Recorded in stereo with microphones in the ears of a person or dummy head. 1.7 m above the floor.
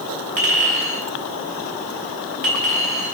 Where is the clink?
45° right (ahead or behind), 3.5 m.